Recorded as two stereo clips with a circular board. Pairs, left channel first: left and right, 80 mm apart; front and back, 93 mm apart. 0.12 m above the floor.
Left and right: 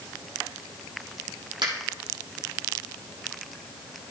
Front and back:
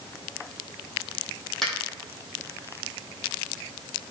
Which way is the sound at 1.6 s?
85° right.